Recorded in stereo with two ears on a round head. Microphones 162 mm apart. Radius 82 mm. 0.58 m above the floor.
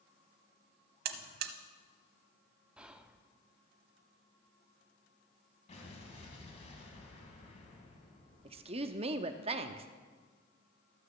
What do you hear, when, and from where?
1.1 s a buzzer: 55° right (ahead or behind), 0.8 m
2.8 s whispering: 5° right (ahead or behind), 0.7 m
5.7 s an explosion: 35° left (ahead or behind), 2.5 m
8.4 s a woman speaking: 30° right (ahead or behind), 0.7 m